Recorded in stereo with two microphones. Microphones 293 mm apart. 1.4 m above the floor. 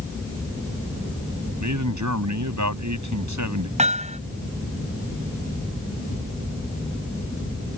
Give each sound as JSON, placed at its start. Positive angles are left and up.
{"t": 1.6, "sound": "a man speaking", "side_deg": -75}
{"t": 3.8, "sound": "hammering", "side_deg": -25}